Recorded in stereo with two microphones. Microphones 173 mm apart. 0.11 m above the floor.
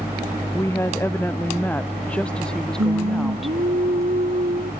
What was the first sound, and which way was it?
A woman speaking, 15° left (ahead or behind).